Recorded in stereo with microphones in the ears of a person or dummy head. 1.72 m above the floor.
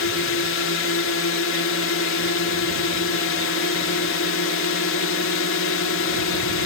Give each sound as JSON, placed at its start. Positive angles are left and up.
{"t": 0.0, "sound": "a drone", "side_deg": 70}